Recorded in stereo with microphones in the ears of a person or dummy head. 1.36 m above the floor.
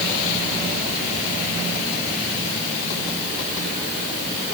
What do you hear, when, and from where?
Only background noise.